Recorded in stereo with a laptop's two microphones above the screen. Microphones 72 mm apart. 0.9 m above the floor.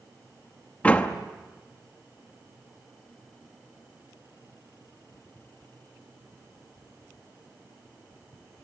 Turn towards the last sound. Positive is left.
turn(degrees=20)  # may be behind; listen again after turning